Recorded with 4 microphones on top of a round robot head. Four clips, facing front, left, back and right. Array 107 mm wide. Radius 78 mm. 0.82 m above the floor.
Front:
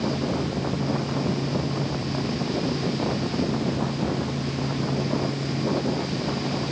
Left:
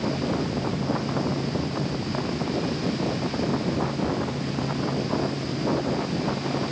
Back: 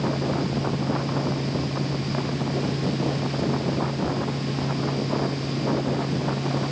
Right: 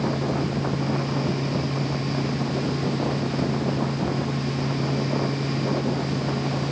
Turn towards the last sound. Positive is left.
No sound to turn to.